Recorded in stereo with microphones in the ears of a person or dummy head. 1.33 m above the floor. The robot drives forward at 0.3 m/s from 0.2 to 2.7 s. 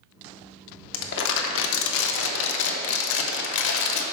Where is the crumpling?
65° left (ahead or behind), 0.8 m; by 4.0 s 70° left (ahead or behind), 0.8 m.